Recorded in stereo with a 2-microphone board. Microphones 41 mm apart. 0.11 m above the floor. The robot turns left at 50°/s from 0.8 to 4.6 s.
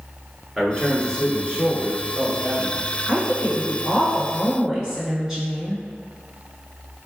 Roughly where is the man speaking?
Centre.